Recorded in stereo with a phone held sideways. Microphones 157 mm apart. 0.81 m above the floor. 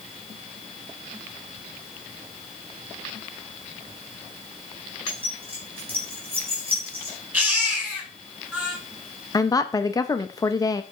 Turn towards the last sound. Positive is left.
turn(degrees=20)  # may be behind; listen again after turning